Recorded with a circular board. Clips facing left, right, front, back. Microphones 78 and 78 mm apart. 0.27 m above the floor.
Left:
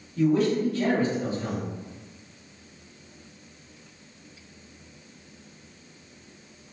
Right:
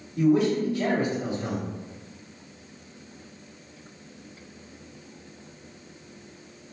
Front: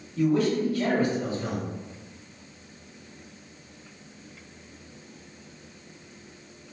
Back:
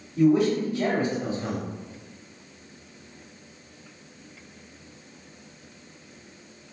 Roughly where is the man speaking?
Behind right.